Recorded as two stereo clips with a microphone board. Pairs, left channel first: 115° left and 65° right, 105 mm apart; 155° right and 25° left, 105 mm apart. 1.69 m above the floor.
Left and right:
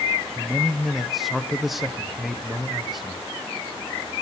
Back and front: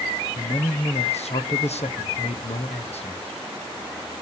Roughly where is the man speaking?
Behind right.